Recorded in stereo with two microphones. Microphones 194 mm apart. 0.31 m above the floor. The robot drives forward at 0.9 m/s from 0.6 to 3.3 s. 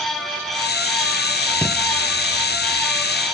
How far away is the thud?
About 1.5 m.